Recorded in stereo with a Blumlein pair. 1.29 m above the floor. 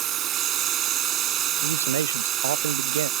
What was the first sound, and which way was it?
A machine running, 30° right.